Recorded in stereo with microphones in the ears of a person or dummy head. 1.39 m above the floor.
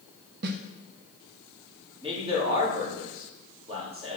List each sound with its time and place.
0.4 s a snare drum: 55° right (ahead or behind), 1.0 m
2.0 s a man speaking: 25° right (ahead or behind), 3.5 m